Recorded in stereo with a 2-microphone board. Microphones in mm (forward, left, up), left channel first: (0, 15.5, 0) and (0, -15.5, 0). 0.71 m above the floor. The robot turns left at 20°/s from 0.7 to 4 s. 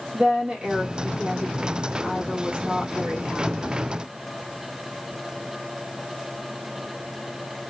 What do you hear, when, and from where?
0.1 s a woman speaking: 35° right, 1.5 m; by 3.8 s 100° right, 1.5 m